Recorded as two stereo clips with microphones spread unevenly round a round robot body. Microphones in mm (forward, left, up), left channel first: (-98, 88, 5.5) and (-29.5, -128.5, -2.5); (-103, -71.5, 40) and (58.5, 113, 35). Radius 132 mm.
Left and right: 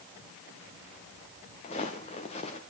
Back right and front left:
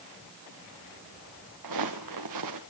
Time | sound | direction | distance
1.6 | footsteps | 40° left | 3.5 m